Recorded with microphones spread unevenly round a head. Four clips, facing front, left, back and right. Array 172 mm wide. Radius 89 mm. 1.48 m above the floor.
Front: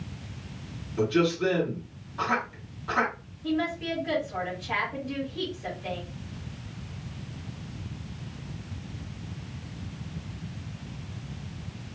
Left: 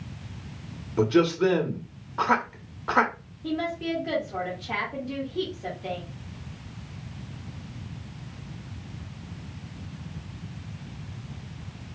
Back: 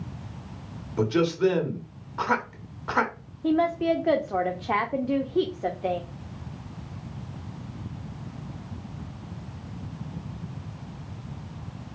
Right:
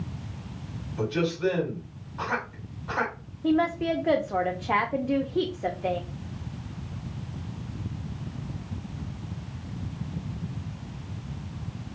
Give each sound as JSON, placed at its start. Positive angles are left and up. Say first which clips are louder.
{"t": 1.0, "sound": "a man speaking", "louder": "left 6 dB, back 2 dB", "azimuth_deg": 100, "distance_m": 1.4}
{"t": 3.4, "sound": "a woman speaking", "louder": "right 5 dB, back 6 dB", "azimuth_deg": -145, "distance_m": 0.7}